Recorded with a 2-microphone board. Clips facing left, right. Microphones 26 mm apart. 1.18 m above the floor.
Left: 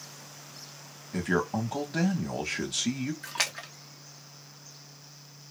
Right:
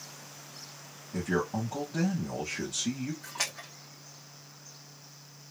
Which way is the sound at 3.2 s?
70° left (ahead or behind).